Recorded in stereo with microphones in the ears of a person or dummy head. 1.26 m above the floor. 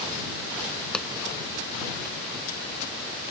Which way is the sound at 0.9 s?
Centre (ahead or behind).